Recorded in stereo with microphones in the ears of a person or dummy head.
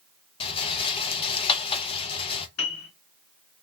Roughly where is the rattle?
Left.